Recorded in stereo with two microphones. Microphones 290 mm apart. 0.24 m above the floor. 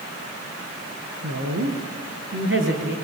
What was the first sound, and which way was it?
A woman speaking, 65° right (ahead or behind).